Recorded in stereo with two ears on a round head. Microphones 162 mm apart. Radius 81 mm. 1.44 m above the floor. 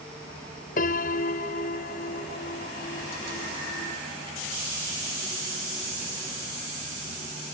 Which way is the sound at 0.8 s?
50° left (ahead or behind).